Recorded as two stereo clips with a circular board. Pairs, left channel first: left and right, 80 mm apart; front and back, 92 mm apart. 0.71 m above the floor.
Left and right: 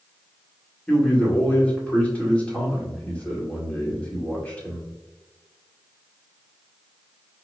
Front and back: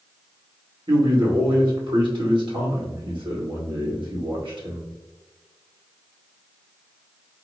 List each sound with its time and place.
0.9 s a man speaking: 165° left, 1.9 m